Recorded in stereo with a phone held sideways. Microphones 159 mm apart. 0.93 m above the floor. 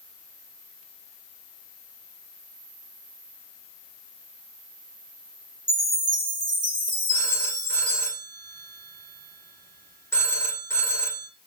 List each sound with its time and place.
5.7 s a chime: 50° right (ahead or behind), 2 m
7.1 s a phone ringing: 15° left (ahead or behind), 1.5 m